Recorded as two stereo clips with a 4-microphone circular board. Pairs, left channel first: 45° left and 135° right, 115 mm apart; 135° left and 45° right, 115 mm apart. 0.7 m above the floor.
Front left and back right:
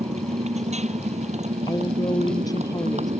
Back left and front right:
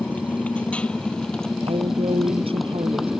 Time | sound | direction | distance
0.0 | a motorcycle | 150° right | ?
1.7 | a woman speaking | 10° right | ?